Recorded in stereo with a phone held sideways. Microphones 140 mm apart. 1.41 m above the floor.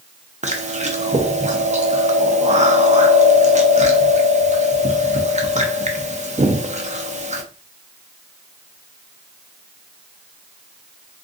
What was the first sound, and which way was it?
Chewing, 55° right (ahead or behind).